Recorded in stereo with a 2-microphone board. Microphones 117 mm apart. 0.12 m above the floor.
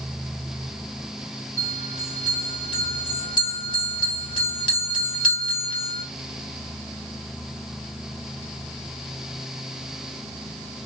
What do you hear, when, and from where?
1.6 s a bell: 40° left (ahead or behind), 2 m